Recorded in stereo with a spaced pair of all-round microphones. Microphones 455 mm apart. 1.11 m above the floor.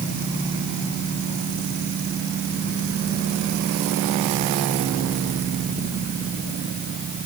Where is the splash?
I don't hear a splash.